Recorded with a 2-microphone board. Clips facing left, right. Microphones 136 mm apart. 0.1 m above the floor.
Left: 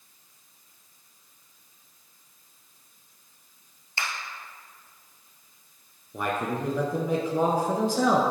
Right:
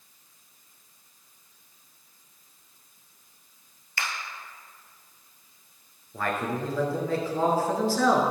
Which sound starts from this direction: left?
A finger snap, at 4.0 s.